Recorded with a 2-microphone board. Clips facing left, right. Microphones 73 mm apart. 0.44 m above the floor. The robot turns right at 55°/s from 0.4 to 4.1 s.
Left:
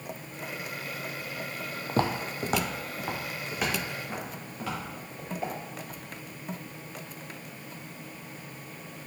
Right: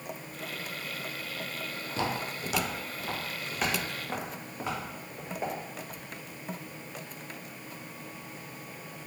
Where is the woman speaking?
No woman speaking in this recording.